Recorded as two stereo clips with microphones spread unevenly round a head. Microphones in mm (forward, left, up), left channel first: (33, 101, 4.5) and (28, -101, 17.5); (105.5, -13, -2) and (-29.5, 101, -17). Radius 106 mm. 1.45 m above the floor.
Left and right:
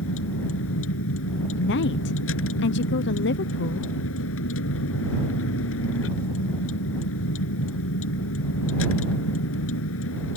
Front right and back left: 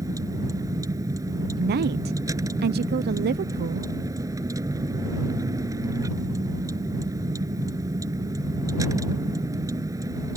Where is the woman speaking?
120° left.